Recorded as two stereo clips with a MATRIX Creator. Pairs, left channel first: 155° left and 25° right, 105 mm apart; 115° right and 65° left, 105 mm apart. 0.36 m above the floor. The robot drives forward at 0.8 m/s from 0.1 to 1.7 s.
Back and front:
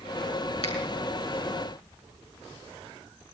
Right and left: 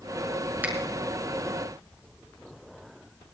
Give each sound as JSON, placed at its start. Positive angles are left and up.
{"t": 0.6, "sound": "a finger snap", "azimuth_deg": 140, "distance_m": 5.0}